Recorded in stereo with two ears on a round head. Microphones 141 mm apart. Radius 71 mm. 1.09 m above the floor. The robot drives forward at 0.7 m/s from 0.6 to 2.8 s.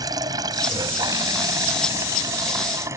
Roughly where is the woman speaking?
No woman speaking in this recording.